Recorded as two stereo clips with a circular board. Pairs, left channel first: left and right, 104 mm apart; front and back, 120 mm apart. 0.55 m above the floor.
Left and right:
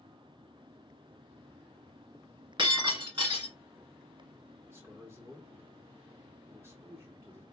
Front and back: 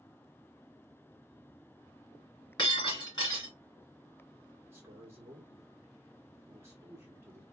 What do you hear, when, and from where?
2.6 s breaking glass: 55° right, 2.5 m
4.7 s a man speaking: 130° right, 1.3 m